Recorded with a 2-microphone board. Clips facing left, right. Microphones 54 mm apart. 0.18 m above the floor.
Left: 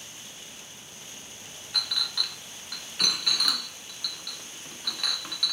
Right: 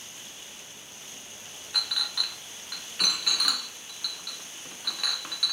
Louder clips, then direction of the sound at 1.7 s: Even; 5° right (ahead or behind).